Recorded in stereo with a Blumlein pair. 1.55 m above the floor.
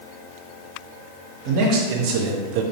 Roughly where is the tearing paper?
I don't hear tearing paper.